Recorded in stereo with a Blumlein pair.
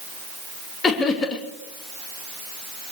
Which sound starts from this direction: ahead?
Laughter, at 0.8 s.